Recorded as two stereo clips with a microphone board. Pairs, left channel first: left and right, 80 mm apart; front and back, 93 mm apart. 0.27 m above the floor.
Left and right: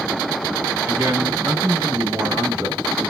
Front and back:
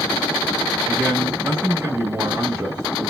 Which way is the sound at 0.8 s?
155° right.